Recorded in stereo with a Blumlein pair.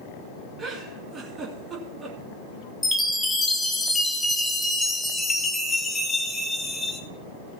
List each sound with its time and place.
0.6 s a giggle: 20° right, 2.5 m
2.8 s a chime: 10° left, 1.5 m